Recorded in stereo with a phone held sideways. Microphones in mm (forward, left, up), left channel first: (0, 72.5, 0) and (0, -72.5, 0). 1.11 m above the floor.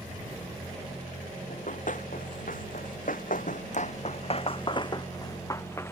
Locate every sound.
1.5 s running footsteps: 60° left (ahead or behind); by 5.9 s 15° left (ahead or behind)